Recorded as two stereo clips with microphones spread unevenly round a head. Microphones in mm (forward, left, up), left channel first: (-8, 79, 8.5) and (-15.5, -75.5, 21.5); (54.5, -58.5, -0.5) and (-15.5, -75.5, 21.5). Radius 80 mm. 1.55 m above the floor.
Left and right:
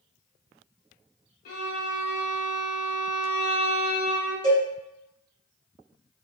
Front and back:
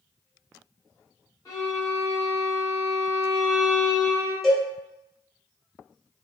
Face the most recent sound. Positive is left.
turn(degrees=-90)